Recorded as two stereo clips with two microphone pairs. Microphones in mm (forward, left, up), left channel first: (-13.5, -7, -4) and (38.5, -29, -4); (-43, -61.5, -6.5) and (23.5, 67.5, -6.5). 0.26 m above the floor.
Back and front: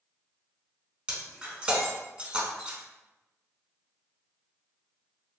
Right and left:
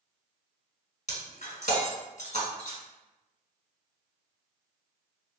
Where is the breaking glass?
90° right, 1.0 m.